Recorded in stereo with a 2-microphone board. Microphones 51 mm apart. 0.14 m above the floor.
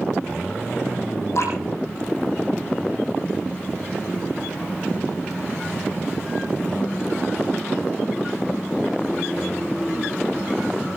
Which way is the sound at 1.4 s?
60° left (ahead or behind).